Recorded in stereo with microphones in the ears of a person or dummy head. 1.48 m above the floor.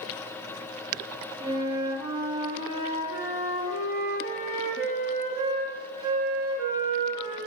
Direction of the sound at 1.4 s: 20° right (ahead or behind).